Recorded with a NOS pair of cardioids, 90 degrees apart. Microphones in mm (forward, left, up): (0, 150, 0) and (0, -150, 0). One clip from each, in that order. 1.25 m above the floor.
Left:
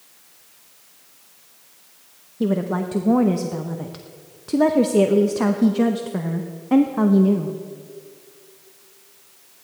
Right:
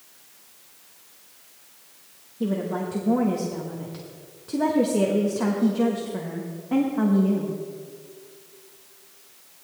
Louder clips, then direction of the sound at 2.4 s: Left 4 dB; 35° left.